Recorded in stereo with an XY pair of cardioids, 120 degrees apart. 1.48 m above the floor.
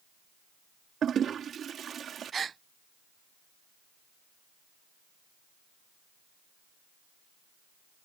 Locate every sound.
1.0 s a toilet flushing: 45° right
2.3 s a gasp: 35° right